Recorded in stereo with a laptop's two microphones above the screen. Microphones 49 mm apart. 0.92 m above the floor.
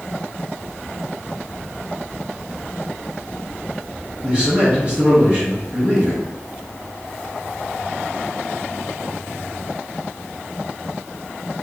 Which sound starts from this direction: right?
A man speaking, at 4.2 s.